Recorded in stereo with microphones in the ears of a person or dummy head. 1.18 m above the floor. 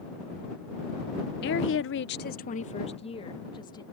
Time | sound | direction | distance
1.4 | a woman speaking | 50° left (ahead or behind) | ?